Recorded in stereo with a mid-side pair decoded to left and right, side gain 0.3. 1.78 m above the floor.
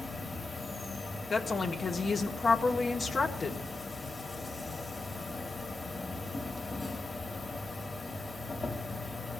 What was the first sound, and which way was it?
An insect, 45° left.